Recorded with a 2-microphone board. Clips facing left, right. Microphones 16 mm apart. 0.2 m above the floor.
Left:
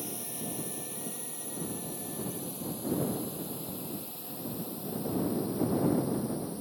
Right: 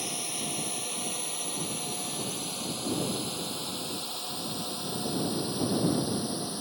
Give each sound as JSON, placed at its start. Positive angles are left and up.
{"t": 0.0, "sound": "a drone", "side_deg": -35}